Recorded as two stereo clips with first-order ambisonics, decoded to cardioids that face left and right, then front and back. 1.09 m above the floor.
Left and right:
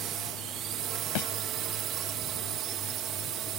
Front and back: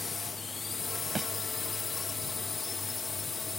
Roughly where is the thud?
Left.